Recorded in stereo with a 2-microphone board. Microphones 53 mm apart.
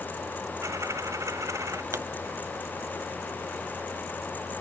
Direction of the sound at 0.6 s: 75° right (ahead or behind).